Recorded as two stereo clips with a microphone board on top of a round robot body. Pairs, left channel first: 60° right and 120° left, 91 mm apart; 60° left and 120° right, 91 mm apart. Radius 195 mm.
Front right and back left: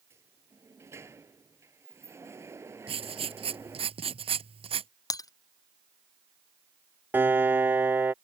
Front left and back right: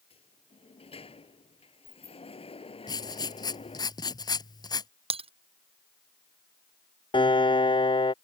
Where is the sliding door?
55° left.